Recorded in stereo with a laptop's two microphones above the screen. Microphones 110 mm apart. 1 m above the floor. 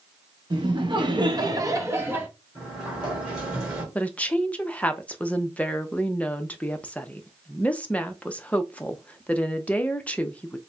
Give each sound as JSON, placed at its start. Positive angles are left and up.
{"t": 0.5, "sound": "laughter", "side_deg": -45, "distance_m": 1.0}
{"t": 2.5, "sound": "a sliding door", "side_deg": -10, "distance_m": 2.0}
{"t": 4.0, "sound": "a woman speaking", "side_deg": 10, "distance_m": 0.6}